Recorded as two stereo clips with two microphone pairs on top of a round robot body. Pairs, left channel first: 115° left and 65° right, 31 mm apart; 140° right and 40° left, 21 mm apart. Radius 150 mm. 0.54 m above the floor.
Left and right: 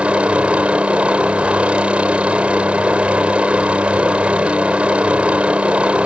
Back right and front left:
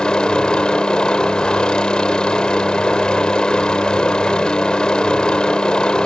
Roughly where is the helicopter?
Right.